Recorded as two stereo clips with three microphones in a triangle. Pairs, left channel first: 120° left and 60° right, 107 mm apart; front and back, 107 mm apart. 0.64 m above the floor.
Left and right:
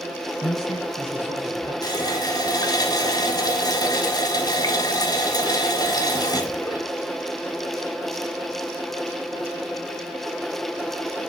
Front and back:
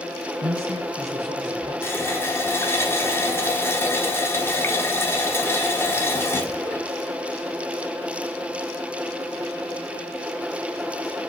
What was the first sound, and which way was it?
A man speaking, 160° left.